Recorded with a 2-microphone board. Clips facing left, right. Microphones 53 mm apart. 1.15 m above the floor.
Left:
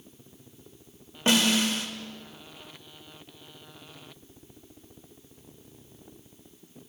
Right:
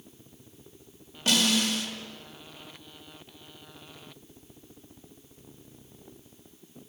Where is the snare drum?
30° left (ahead or behind), 1.2 m.